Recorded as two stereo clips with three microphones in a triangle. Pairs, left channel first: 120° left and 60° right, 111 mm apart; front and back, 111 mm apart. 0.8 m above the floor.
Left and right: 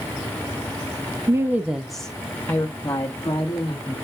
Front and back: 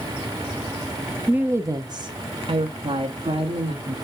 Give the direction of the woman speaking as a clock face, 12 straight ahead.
4 o'clock.